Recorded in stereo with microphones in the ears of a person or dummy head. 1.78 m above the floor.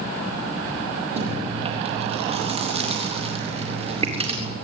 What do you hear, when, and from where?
1.2 s chewing: 35° right (ahead or behind), 3.5 m